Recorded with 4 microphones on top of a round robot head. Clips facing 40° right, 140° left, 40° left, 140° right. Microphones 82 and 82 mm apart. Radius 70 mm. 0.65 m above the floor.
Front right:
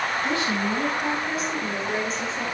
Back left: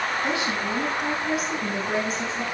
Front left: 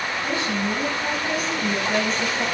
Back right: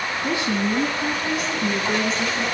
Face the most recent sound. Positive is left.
turn(degrees=-135)